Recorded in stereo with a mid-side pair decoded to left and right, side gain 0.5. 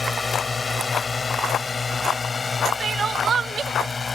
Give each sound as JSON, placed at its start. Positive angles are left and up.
{"t": 0.0, "sound": "a drone", "azimuth_deg": 25}
{"t": 2.8, "sound": "crying", "azimuth_deg": -45}